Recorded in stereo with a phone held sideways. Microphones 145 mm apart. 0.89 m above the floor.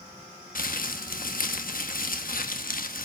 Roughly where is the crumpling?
Left.